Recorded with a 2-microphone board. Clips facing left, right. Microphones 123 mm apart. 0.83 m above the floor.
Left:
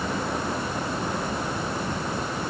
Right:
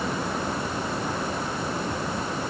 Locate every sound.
Only background noise.